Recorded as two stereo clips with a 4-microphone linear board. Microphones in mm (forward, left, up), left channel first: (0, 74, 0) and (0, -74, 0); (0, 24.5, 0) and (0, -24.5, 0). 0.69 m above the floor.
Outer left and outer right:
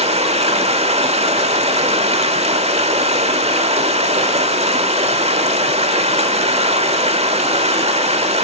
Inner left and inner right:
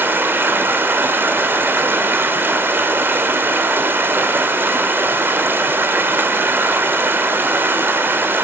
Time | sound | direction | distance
0.0 | running water | 45° right (ahead or behind) | 1.6 m